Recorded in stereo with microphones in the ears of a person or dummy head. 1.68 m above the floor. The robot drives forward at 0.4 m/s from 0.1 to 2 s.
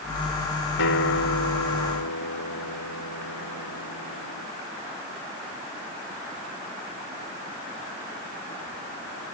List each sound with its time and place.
0.8 s a guitar: 80° left; by 4.5 s 75° left (ahead or behind)